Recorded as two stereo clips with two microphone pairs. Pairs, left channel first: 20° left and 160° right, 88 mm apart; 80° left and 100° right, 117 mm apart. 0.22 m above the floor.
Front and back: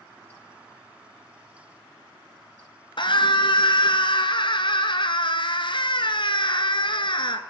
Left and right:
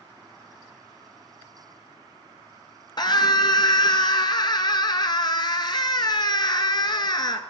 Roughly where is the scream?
Ahead left.